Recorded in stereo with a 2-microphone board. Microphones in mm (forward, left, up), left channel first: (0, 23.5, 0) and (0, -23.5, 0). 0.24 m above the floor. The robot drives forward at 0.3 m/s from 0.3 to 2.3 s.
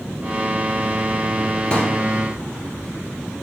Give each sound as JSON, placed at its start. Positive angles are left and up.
{"t": 1.7, "sound": "a pop", "side_deg": 20, "distance_m": 1.4}